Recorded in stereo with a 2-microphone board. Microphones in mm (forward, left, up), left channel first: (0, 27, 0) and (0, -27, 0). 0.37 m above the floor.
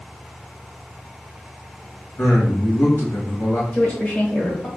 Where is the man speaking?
60° left (ahead or behind), 1.6 m.